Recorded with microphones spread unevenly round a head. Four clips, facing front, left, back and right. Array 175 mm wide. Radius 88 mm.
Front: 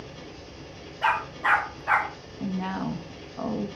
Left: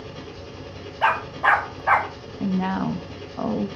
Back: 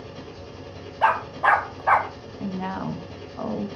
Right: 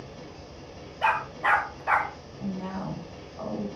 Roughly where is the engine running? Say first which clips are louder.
Left 5 dB, back 3 dB; left.